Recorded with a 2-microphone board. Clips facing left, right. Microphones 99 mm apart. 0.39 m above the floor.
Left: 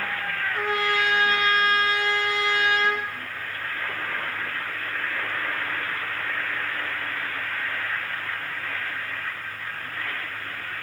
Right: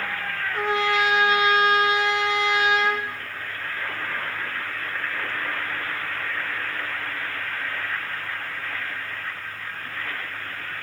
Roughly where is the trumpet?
Right.